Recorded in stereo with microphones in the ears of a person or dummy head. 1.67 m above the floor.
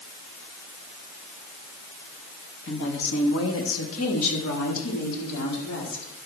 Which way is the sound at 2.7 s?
65° left (ahead or behind).